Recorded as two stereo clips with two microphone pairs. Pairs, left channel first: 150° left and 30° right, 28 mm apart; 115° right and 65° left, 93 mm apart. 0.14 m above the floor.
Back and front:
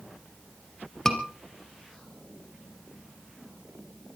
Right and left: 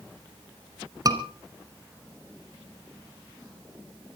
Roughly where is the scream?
Left.